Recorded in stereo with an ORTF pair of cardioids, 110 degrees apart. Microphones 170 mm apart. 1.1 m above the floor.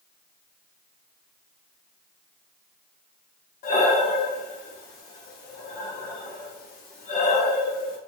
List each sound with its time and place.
3.6 s breathing: 65° left, 0.9 m